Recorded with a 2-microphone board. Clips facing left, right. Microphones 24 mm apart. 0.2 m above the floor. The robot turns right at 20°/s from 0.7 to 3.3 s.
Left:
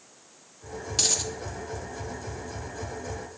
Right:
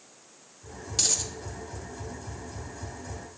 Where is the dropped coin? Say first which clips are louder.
Left 2 dB; 10° left (ahead or behind), 1.1 m; by 1.3 s 20° left (ahead or behind), 1.1 m.